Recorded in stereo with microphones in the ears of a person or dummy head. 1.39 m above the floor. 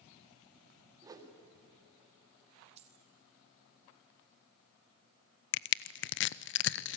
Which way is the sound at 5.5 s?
60° left (ahead or behind).